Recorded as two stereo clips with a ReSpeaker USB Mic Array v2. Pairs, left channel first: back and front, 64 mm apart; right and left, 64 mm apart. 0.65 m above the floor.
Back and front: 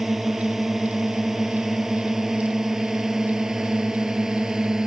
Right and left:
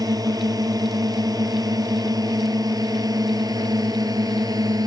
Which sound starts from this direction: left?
A drone, at 0.0 s.